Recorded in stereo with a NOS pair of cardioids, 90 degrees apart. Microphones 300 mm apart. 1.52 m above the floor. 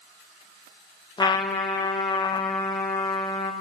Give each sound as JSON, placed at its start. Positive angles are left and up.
{"t": 1.2, "sound": "a trumpet", "azimuth_deg": 15, "distance_m": 0.8}